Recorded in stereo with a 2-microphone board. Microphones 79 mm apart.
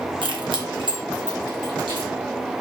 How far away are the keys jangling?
About 0.7 m.